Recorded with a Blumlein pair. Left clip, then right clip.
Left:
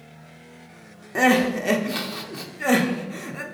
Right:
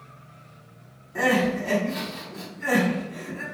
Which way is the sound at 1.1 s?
30° left.